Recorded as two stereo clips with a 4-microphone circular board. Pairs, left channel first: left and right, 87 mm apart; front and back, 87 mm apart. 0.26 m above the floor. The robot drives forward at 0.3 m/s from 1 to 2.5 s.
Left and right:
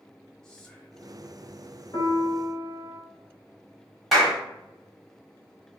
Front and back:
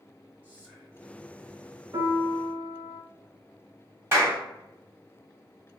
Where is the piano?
140° left, 1.3 m; by 3.0 s 145° left, 1.4 m.